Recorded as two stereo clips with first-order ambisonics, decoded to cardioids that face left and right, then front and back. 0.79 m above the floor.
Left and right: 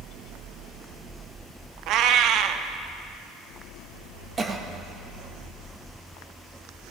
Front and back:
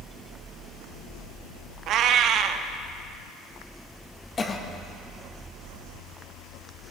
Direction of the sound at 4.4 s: 45° right.